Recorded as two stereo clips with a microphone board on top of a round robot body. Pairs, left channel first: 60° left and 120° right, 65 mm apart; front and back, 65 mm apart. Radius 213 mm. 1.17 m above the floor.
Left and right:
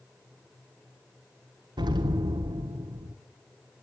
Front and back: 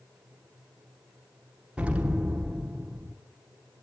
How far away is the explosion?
About 1.1 m.